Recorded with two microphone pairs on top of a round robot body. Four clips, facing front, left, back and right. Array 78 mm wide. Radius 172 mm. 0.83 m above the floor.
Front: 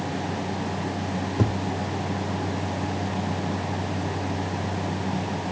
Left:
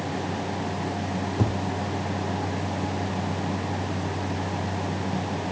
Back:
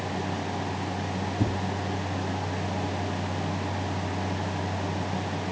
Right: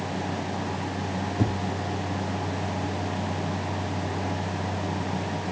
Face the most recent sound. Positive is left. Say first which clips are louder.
# even, front 3 dB
turn(degrees=15)